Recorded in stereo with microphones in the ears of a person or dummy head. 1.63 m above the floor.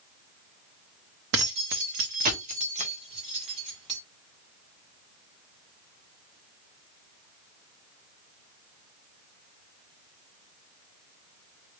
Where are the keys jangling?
45° right (ahead or behind), 0.7 m; by 4.0 s 30° right (ahead or behind), 1.7 m.